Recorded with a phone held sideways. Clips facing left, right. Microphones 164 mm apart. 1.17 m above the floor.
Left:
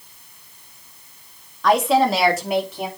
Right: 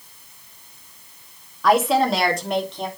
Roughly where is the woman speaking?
Centre.